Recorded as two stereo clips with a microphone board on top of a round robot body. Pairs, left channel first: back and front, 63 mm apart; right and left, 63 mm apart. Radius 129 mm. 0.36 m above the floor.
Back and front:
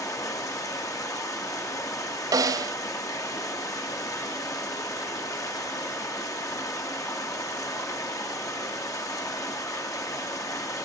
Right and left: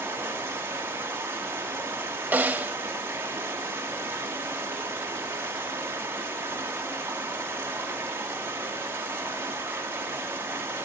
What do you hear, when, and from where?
0.0 s running water: 145° left, 1.8 m
2.3 s a snare drum: 25° left, 0.8 m